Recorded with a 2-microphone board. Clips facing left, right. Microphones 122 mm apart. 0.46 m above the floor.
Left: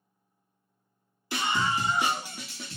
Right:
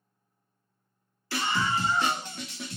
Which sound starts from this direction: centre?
A scream, at 1.3 s.